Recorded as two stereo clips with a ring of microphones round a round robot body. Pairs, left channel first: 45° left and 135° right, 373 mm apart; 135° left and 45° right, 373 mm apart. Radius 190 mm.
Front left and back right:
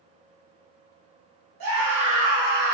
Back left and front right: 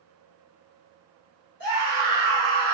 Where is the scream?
165° right, 2.5 m; by 2.8 s 160° right, 1.6 m.